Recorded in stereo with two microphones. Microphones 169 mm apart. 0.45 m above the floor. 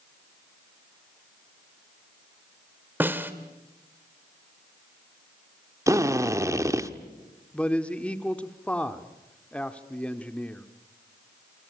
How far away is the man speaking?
About 1.3 m.